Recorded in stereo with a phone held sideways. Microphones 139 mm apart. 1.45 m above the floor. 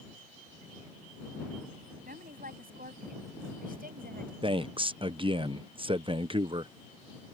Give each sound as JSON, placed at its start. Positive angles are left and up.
{"t": 2.0, "sound": "a woman speaking", "side_deg": -85}
{"t": 4.4, "sound": "a man speaking", "side_deg": -35}